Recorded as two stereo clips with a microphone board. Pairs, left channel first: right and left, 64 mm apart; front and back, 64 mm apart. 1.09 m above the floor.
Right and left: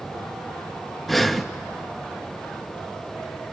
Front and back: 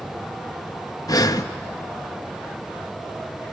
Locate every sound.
1.1 s breathing: straight ahead, 0.7 m